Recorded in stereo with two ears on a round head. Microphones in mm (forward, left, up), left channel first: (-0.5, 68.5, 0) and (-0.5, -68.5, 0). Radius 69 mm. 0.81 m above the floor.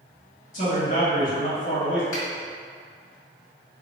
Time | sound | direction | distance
0.5 | a man speaking | 55° left (ahead or behind) | 1.6 m
2.1 | a finger snap | 60° left (ahead or behind) | 1.7 m